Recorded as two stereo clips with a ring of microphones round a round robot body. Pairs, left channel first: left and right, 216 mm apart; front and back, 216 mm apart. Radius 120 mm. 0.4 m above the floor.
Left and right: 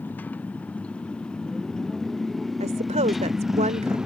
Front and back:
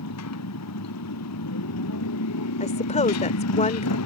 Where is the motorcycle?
5° left; by 4.1 s straight ahead.